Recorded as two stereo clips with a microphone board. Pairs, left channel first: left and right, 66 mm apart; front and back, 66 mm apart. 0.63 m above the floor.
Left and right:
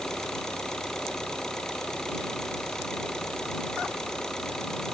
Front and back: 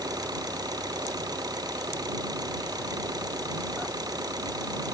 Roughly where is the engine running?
Behind.